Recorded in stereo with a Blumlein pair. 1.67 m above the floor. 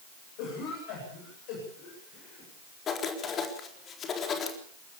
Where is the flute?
No flute in this recording.